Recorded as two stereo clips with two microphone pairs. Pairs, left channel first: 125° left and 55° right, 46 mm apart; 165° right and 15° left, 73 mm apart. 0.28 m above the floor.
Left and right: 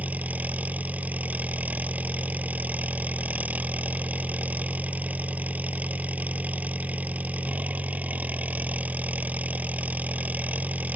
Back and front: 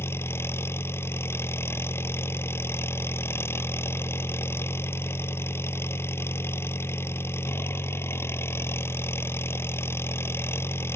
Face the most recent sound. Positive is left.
turn(degrees=-110)